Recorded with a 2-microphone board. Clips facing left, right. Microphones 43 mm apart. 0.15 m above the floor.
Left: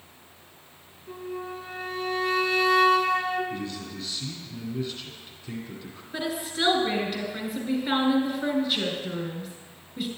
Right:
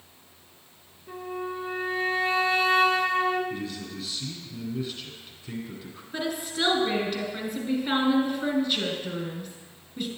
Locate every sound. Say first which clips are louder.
1.1 s a flute: right 2 dB; 25° right (ahead or behind), 0.9 m
3.5 s a man speaking: even; 5° right (ahead or behind), 1.5 m
6.1 s a woman speaking: even; centre (ahead or behind), 1.7 m